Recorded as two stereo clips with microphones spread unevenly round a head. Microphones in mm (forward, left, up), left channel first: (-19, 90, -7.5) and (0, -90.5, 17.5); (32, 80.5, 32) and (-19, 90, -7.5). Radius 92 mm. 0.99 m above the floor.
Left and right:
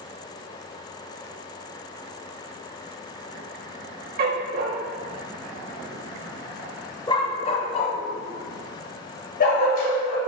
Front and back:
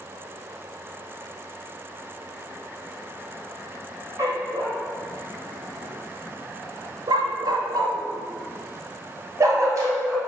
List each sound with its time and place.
4.2 s a dog barking: 105° right, 1.3 m; by 10.2 s 130° left, 2.5 m